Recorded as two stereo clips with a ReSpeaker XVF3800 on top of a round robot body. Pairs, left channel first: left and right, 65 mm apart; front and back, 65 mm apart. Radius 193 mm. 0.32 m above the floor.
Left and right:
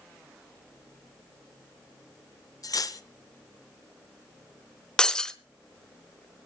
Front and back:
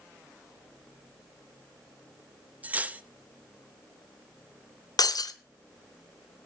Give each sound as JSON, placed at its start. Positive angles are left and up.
{"t": 2.6, "sound": "cutlery clinking", "azimuth_deg": 115, "distance_m": 1.1}
{"t": 5.0, "sound": "breaking glass", "azimuth_deg": 10, "distance_m": 1.4}